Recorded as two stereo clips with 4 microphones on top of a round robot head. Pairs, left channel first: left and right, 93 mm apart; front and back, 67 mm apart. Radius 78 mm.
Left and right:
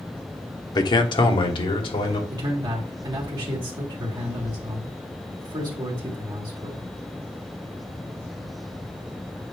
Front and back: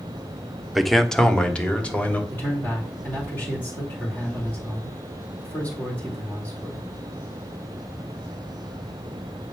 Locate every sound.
0.8 s a man speaking: 90° left, 1.0 m; by 2.2 s 65° left, 2 m
2.3 s a man speaking: 60° right, 2.0 m